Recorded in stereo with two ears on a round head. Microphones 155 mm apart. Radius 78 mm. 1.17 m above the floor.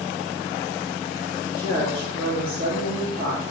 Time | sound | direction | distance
1.5 | a woman speaking | 50° right (ahead or behind) | 2.5 m